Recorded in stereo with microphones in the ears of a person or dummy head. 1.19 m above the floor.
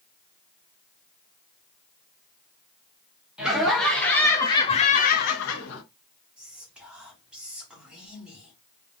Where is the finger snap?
I don't hear a finger snap.